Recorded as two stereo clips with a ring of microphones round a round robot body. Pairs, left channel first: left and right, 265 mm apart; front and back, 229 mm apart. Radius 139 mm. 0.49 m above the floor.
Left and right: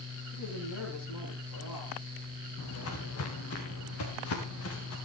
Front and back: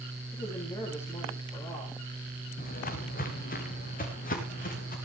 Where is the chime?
I don't hear a chime.